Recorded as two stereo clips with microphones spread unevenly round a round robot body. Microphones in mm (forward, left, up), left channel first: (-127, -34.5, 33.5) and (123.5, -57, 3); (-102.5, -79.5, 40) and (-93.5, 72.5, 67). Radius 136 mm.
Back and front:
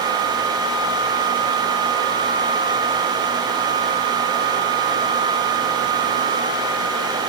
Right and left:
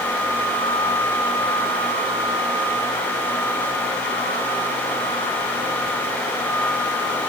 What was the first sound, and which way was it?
Only background noise.